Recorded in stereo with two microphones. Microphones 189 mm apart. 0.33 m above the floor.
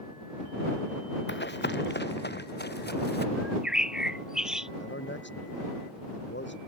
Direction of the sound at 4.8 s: 75° left (ahead or behind).